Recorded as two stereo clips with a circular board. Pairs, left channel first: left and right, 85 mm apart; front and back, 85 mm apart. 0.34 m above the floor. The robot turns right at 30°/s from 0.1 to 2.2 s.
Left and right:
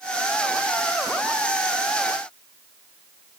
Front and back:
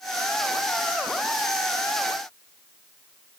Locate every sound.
Only background noise.